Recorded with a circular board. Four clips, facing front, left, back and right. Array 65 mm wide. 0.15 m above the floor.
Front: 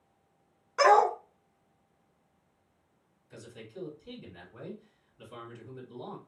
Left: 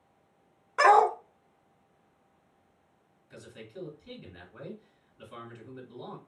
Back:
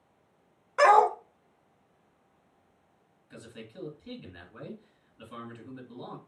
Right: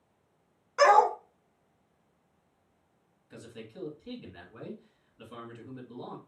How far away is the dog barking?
About 0.5 m.